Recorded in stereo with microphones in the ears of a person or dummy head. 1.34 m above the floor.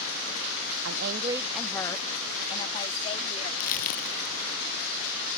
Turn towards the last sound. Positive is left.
turn(degrees=45)  # may be behind; listen again after turning